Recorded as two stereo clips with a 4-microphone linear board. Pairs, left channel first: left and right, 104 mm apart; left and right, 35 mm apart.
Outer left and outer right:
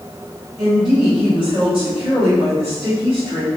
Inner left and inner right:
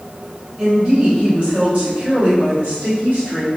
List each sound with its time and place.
0.6 s a woman speaking: 35° right (ahead or behind), 1.0 m; by 3.5 s 60° right (ahead or behind), 2.0 m